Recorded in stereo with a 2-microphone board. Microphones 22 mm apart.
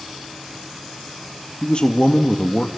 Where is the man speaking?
50° left (ahead or behind), 1.5 m.